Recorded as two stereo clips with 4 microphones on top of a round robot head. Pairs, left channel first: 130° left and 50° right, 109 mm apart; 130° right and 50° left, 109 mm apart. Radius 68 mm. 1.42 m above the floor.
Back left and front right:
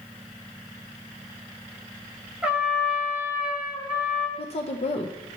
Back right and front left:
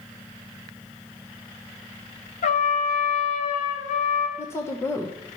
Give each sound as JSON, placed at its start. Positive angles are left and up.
{"t": 2.4, "sound": "a trumpet", "azimuth_deg": -130, "distance_m": 1.4}
{"t": 4.4, "sound": "a woman speaking", "azimuth_deg": 160, "distance_m": 1.0}